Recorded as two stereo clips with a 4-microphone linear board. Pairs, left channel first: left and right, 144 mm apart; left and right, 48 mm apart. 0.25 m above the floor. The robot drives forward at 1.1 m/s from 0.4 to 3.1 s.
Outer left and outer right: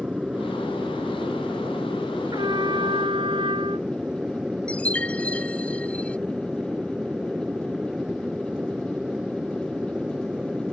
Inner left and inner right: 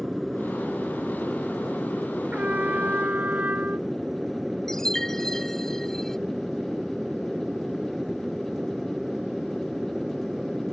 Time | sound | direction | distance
0.0 | an aircraft | 5° right (ahead or behind) | ?
2.3 | a trumpet | 30° right (ahead or behind) | ?
4.7 | a chime | 10° left (ahead or behind) | ?